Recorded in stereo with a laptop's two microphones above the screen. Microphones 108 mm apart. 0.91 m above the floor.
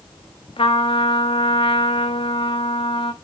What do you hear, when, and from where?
0.6 s a trumpet: 55° left (ahead or behind), 0.7 m